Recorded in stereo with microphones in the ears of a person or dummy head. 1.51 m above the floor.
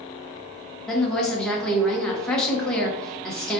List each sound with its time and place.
0.9 s a woman speaking: 5° left (ahead or behind), 0.9 m